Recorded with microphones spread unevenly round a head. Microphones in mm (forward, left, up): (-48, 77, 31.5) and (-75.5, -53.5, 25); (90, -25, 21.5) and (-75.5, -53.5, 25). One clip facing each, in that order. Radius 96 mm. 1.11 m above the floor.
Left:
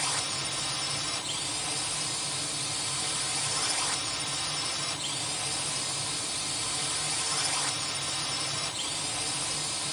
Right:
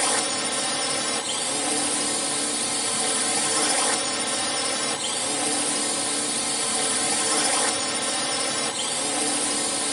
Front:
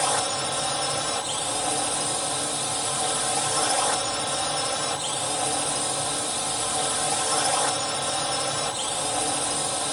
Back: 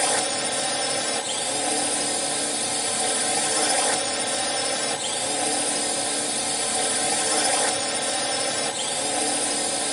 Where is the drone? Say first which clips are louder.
Right 10 dB, back 1 dB; 100° right.